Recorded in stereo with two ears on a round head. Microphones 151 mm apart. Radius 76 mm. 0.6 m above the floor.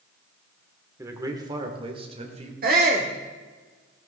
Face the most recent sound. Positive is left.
turn(degrees=-55)  # may be behind; listen again after turning